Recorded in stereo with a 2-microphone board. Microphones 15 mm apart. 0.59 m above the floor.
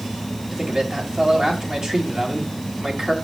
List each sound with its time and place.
0.5 s a man speaking: 55° right (ahead or behind), 3.5 m